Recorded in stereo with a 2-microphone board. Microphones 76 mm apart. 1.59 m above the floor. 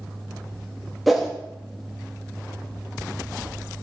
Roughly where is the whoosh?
Centre.